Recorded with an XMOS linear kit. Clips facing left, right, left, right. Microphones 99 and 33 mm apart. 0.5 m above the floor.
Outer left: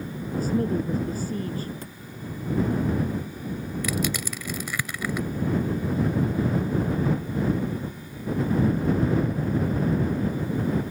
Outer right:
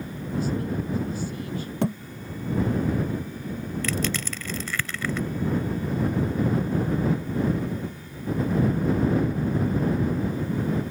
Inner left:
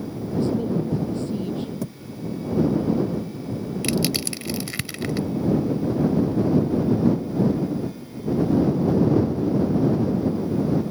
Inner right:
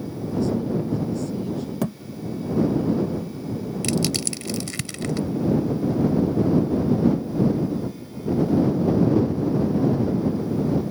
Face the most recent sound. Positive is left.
turn(degrees=15)  # may be behind; listen again after turning